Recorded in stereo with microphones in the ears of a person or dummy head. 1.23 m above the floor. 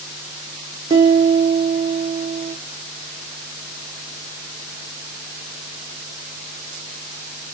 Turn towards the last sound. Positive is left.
turn(degrees=-25)  # may be behind; listen again after turning